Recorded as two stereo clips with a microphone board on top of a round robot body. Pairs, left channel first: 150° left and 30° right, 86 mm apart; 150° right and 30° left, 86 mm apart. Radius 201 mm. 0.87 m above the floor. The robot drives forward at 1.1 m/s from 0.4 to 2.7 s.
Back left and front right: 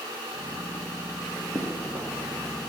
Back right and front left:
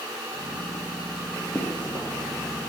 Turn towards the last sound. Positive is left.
turn(degrees=-115)